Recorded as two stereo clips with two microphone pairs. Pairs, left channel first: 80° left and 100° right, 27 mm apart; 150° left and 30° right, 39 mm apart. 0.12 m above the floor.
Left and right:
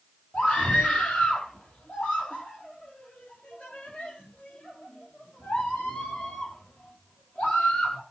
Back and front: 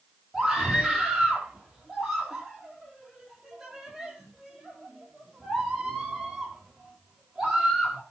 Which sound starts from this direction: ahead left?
A scream, at 0.3 s.